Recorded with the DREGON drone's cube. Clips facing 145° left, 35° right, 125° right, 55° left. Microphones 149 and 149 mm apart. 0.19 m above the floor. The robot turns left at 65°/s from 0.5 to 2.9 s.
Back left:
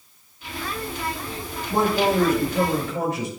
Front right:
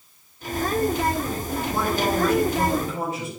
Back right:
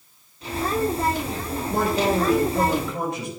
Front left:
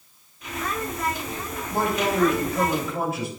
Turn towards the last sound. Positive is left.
turn(degrees=140)